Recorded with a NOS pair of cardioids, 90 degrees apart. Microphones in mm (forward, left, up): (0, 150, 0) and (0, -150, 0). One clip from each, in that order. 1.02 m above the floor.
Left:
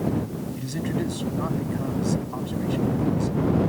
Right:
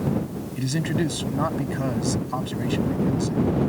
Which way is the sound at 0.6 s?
55° right.